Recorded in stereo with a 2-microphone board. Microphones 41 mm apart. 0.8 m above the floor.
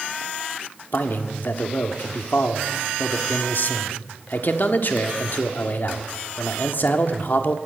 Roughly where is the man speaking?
Left.